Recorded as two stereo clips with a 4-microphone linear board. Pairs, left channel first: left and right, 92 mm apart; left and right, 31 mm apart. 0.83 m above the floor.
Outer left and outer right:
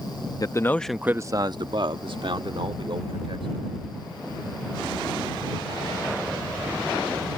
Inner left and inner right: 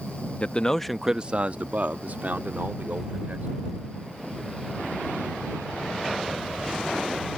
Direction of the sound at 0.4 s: 45° left (ahead or behind).